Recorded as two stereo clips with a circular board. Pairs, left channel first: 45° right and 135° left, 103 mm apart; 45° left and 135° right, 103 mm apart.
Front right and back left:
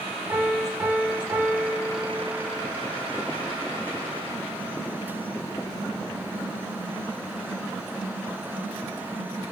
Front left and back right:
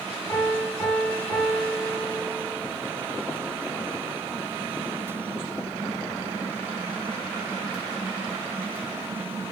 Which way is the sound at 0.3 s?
95° left.